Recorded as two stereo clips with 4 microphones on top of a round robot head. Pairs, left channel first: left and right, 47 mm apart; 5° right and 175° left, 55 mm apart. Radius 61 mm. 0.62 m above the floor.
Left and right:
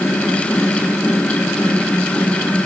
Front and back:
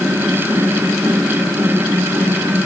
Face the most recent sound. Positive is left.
No sound to turn to.